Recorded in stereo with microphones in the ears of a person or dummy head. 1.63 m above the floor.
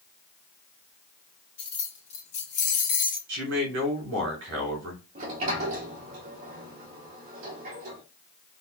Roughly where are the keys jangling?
Left.